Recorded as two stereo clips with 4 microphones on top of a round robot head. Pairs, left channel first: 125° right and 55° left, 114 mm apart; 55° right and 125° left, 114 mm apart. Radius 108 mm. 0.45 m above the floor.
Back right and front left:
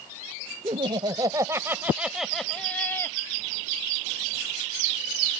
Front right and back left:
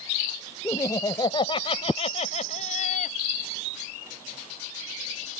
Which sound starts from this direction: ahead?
Laughter, at 0.6 s.